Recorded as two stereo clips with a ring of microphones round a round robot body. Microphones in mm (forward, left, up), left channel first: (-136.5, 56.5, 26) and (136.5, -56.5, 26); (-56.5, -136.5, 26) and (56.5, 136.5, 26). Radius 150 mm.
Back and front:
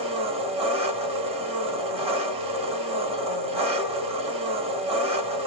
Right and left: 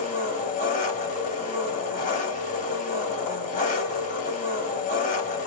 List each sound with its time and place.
0.0 s an engine running: 75° right, 1.2 m